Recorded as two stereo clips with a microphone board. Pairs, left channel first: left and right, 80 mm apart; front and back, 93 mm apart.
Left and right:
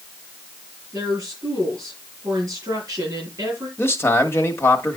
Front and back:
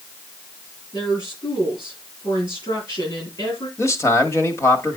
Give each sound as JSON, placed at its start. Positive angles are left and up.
{"t": 0.9, "sound": "a woman speaking", "azimuth_deg": -40, "distance_m": 6.5}
{"t": 3.8, "sound": "a man speaking", "azimuth_deg": 45, "distance_m": 1.2}